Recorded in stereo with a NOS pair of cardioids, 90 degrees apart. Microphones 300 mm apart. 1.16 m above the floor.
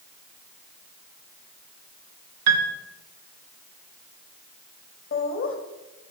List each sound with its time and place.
2.5 s a piano: 65° right, 1.1 m
5.1 s laughter: 45° left, 1.7 m